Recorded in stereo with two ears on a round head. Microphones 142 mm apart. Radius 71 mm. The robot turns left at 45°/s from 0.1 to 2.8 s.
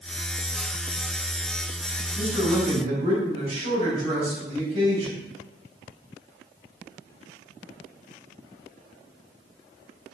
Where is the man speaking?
10° right (ahead or behind), 3 m; by 5.2 s 40° right (ahead or behind), 3 m.